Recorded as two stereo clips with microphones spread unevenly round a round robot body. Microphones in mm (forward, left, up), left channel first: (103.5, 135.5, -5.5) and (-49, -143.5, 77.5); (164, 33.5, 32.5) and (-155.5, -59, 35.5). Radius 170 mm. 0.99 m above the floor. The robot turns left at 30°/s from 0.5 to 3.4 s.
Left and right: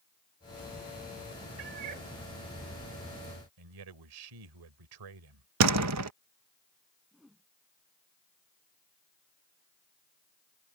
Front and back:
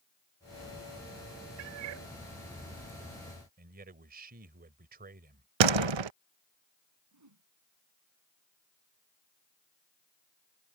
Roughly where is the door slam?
Behind.